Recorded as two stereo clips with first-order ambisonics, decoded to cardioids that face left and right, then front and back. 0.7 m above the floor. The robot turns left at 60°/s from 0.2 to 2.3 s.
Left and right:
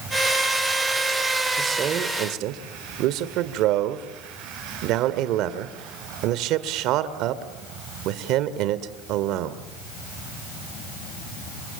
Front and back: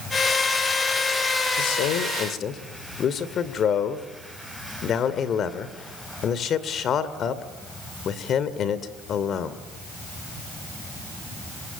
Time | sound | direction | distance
1.6 | a man speaking | 15° right | 2 m